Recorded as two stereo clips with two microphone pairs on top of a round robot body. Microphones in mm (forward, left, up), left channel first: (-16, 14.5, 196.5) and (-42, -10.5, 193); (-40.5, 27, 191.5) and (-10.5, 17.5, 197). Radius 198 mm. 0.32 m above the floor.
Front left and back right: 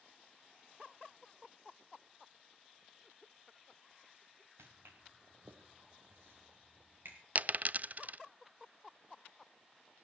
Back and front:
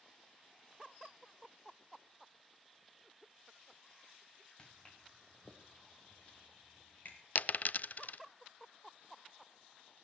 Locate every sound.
4.6 s footsteps: 130° right, 2 m; by 7.2 s 160° right, 3.5 m
7.3 s a dropped coin: 175° right, 0.5 m